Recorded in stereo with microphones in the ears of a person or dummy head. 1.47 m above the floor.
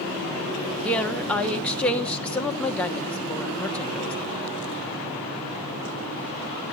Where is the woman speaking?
5° left (ahead or behind), 1.1 m.